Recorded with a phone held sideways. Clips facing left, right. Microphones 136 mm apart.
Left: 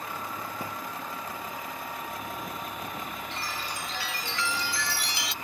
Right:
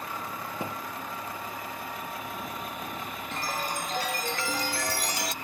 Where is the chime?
45° right (ahead or behind).